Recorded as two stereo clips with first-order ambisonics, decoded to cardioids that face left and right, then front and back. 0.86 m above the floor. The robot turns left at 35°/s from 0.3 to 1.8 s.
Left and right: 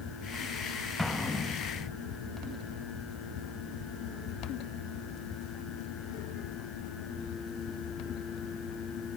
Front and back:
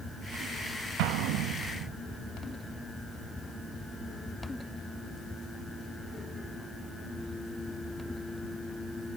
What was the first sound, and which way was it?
An explosion, straight behind.